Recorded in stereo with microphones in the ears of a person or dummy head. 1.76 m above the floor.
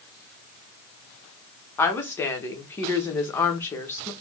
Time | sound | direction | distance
1.8 | a woman speaking | 15° left (ahead or behind) | 0.9 m